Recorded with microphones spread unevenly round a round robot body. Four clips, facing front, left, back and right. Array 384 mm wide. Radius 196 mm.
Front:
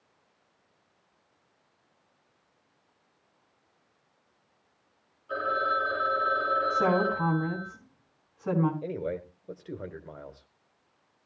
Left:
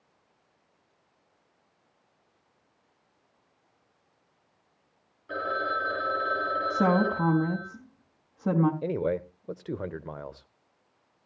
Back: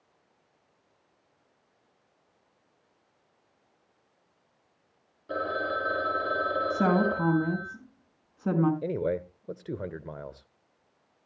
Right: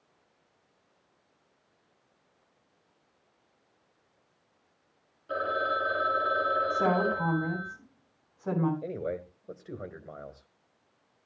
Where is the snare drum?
I don't hear a snare drum.